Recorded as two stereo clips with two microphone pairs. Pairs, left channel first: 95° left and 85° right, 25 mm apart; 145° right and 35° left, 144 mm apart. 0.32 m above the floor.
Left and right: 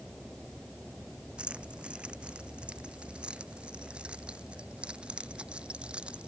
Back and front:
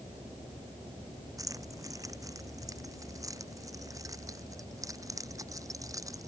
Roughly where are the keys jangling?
Ahead right.